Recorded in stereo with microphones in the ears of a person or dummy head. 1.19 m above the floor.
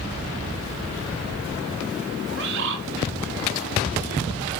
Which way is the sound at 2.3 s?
55° right (ahead or behind).